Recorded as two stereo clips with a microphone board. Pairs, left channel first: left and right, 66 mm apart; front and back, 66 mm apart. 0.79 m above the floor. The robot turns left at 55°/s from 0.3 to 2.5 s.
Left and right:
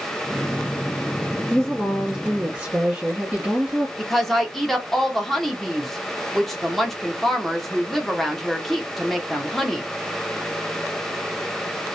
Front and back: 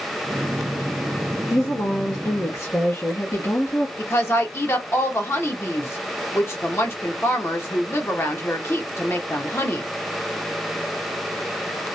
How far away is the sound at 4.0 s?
About 0.7 m.